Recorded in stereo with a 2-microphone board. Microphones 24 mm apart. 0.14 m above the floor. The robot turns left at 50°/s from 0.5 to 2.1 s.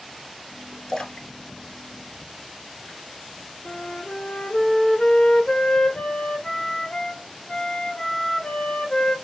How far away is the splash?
About 0.8 m.